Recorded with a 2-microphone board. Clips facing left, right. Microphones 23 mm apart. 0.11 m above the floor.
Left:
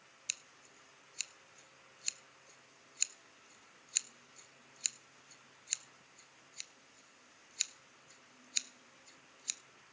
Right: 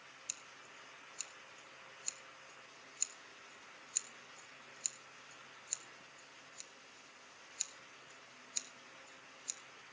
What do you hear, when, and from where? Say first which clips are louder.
0.3 s scissors: left 6 dB; 40° left (ahead or behind), 0.7 m